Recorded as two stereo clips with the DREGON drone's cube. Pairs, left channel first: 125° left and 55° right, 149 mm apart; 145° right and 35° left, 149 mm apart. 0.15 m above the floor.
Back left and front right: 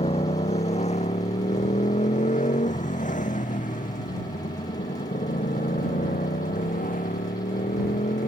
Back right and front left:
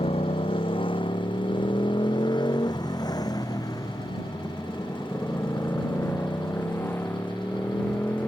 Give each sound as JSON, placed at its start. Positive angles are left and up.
{"t": 0.0, "sound": "a motorcycle", "azimuth_deg": 170}